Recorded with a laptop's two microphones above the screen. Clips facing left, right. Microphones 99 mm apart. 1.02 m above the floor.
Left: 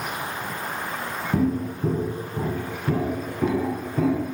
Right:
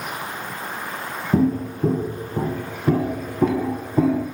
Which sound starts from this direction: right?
Footsteps, at 1.3 s.